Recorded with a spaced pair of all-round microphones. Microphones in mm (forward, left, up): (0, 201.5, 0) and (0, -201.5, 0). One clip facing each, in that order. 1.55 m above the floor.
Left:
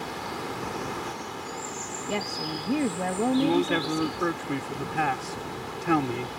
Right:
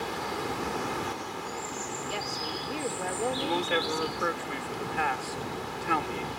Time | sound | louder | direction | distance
2.1 | a woman speaking | left 9 dB | 65° left (ahead or behind) | ?
3.4 | a man speaking | left 7 dB | 60° left (ahead or behind) | ?